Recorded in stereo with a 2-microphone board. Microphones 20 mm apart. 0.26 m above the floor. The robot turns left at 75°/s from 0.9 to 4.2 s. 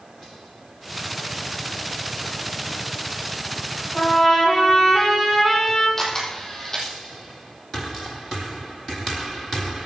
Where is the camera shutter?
20° left (ahead or behind), 4.5 m.